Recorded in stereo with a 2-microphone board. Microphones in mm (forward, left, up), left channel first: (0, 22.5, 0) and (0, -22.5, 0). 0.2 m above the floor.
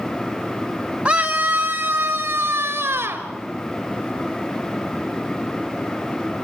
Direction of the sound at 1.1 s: 20° right (ahead or behind).